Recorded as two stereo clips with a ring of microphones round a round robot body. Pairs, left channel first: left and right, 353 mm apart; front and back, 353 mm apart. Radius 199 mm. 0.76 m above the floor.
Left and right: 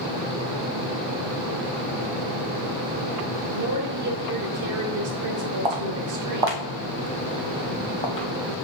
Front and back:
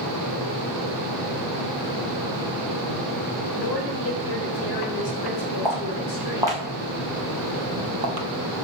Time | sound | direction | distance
3.5 | a woman speaking | 55° right | 2.5 m
5.7 | footsteps | 90° right | 2 m